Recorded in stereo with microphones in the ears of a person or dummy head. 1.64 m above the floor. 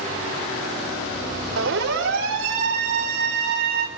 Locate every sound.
1.6 s a siren: 80° right, 5.5 m; by 3.9 s 55° right (ahead or behind), 2 m